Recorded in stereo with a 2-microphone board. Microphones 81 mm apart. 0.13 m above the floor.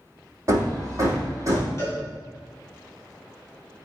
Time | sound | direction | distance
0.5 | hammering | 40° right (ahead or behind) | 3 m
1.8 | a cowbell | 35° left (ahead or behind) | 4 m